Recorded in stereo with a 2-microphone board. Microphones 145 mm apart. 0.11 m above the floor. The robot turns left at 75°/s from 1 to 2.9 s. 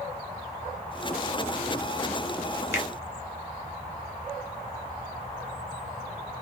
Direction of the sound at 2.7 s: 15° right (ahead or behind).